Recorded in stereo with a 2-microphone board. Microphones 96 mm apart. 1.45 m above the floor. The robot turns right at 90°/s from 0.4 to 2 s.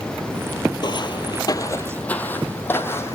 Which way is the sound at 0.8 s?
50° left (ahead or behind).